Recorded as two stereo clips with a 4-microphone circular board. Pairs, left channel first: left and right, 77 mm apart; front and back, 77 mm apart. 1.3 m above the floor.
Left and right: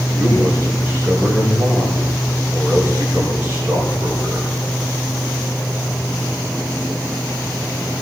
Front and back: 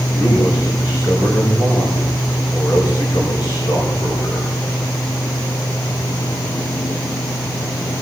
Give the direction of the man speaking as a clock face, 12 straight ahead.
1 o'clock.